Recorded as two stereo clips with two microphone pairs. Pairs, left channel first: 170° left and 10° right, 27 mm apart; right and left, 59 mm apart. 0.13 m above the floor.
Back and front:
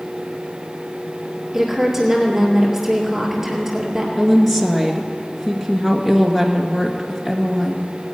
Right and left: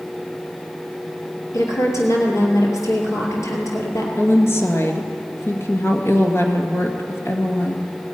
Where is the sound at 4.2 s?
105° right, 2 m.